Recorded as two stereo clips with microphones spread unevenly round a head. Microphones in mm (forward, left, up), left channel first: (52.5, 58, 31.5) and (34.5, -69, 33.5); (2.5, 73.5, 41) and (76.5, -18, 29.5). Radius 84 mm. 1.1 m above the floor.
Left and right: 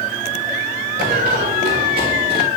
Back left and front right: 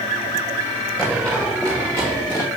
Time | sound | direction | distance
1.0 | running footsteps | 145° right | 6.5 m